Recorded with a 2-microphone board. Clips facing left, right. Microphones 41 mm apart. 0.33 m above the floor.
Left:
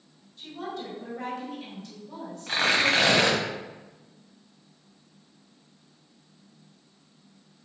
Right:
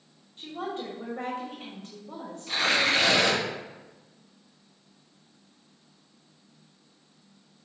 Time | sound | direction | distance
0.4 | a woman speaking | 40° right (ahead or behind) | 1.9 m
2.5 | tearing paper | 55° left (ahead or behind) | 1.2 m